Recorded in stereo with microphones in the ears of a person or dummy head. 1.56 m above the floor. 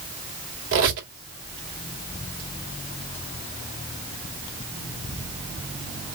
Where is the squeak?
70° right (ahead or behind), 2.5 m.